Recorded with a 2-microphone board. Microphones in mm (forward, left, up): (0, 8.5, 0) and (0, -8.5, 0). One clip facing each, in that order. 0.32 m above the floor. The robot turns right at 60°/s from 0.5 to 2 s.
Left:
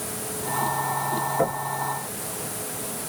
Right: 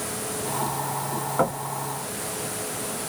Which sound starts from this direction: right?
Knocking, at 1.4 s.